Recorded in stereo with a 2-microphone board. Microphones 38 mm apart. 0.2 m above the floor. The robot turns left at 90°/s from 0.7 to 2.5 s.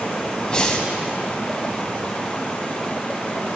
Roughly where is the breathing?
Centre.